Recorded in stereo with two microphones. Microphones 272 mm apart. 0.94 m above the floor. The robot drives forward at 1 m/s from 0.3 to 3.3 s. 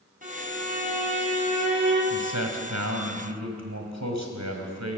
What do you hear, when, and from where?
0.2 s a violin: 30° right (ahead or behind), 8 m; by 2.0 s 25° right (ahead or behind), 9.5 m
2.1 s a man speaking: 80° right, 4.5 m